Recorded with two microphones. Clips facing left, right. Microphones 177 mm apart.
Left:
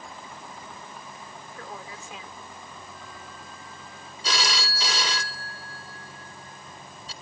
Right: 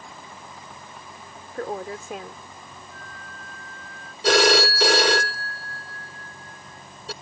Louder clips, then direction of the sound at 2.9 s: Even; 70° right (ahead or behind).